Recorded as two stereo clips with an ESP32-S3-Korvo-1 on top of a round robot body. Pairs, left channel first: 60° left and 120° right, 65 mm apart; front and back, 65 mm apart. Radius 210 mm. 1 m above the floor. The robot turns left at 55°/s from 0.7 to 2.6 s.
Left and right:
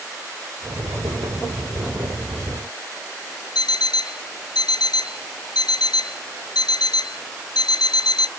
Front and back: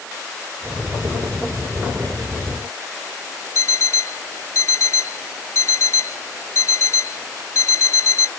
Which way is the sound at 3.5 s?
45° left.